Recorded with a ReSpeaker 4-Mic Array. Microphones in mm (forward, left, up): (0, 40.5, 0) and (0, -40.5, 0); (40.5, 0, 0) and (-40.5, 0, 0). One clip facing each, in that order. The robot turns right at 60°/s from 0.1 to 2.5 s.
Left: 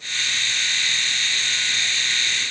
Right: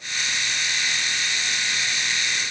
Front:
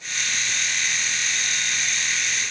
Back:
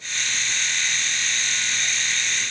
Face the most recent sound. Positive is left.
No sound to turn to.